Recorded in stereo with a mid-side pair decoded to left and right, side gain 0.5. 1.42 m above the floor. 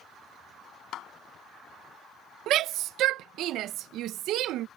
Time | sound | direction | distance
0.9 | a clap | 65° left | ?
2.5 | a shout | 70° right | ?